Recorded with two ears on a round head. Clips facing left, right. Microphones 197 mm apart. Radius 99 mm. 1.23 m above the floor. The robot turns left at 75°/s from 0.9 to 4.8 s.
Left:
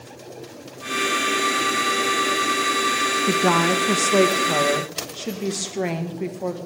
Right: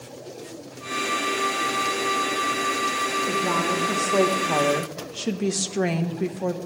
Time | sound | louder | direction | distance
3.3 | a woman speaking | left 7 dB | 105° left | 1.3 m